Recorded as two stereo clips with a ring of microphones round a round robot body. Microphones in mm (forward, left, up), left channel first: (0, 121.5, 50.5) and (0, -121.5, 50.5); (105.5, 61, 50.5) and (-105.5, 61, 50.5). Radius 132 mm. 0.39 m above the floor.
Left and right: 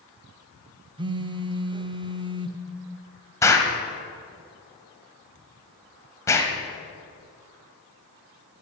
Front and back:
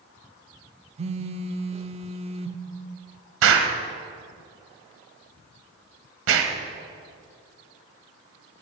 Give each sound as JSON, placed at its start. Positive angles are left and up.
{"t": 1.0, "sound": "a phone buzzing", "azimuth_deg": -145, "distance_m": 0.5}
{"t": 3.4, "sound": "an explosion", "azimuth_deg": 170, "distance_m": 1.2}